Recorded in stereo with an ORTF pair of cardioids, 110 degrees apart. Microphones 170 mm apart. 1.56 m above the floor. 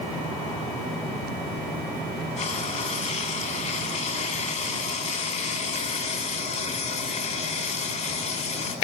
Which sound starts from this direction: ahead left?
Frying, at 2.4 s.